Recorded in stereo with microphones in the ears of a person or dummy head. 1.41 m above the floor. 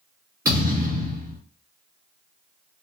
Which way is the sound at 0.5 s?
15° right (ahead or behind).